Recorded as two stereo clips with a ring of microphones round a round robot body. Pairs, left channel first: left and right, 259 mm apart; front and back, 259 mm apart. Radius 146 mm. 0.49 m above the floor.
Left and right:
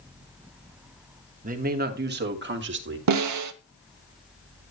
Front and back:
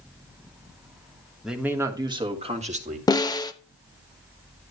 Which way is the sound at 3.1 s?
75° right.